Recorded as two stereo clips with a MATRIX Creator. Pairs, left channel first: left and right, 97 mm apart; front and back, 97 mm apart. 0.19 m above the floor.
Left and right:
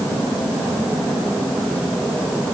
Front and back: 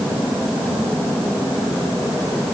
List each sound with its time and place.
Only background noise.